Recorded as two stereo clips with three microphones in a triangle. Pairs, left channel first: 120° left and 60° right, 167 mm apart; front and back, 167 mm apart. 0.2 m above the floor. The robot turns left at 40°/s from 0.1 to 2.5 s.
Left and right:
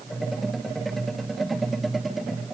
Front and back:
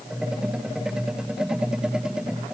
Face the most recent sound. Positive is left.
No sound to turn to.